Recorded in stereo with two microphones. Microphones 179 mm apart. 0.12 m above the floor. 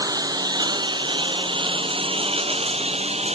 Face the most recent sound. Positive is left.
turn(degrees=-35)  # may be behind; listen again after turning